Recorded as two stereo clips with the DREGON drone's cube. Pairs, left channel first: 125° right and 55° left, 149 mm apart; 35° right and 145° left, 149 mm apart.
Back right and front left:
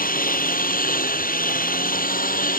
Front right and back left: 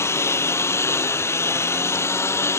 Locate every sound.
0.0 s a lawn mower: 110° right